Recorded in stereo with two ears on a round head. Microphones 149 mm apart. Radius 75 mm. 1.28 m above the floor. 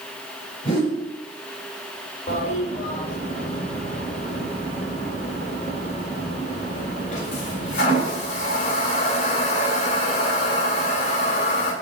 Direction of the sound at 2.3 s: 45° left (ahead or behind).